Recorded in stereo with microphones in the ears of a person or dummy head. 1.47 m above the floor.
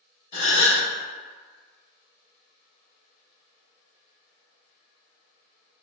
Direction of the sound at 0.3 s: 40° left (ahead or behind).